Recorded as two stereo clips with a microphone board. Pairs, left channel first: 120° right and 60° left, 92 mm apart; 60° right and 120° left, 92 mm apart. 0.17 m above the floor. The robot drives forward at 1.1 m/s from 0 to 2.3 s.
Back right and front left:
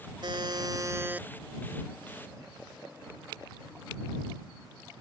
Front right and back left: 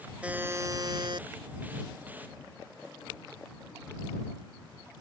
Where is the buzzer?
45° left; by 1.3 s 135° left.